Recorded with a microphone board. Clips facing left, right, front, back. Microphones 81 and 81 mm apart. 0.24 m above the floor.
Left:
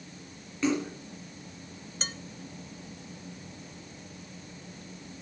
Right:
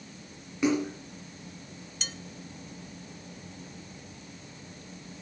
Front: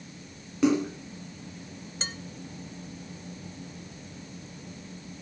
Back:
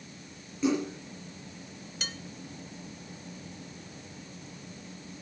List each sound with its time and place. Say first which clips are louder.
0.6 s a splash: right 2 dB, front 4 dB; 15° right, 4 m
2.0 s dishes clattering: left 4 dB, front 2 dB; 55° left, 0.9 m